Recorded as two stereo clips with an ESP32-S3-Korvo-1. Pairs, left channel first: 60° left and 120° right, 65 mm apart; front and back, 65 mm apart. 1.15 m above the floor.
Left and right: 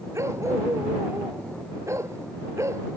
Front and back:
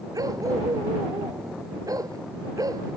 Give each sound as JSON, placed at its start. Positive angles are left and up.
{"t": 0.1, "sound": "a dog barking", "azimuth_deg": -160}